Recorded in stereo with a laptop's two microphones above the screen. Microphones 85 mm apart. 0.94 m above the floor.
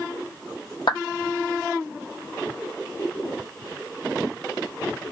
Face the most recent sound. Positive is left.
turn(degrees=65)  # may be behind; listen again after turning